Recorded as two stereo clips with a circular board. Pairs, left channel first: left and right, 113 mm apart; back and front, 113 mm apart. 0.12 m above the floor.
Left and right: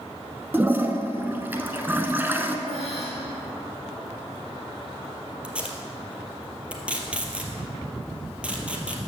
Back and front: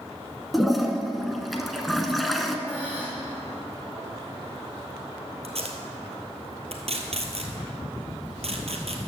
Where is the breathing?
75° right, 3.5 m.